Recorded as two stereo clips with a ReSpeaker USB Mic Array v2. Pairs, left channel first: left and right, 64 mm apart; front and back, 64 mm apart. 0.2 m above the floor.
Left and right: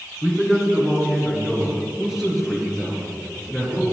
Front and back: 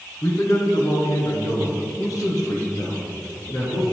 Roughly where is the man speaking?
Ahead.